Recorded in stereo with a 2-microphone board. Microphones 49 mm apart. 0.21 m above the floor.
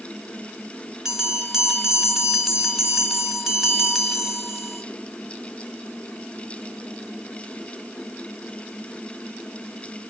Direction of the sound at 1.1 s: 10° right (ahead or behind).